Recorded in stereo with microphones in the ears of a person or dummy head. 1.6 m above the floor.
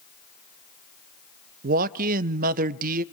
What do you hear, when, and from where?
1.6 s a man speaking: 45° right (ahead or behind), 0.7 m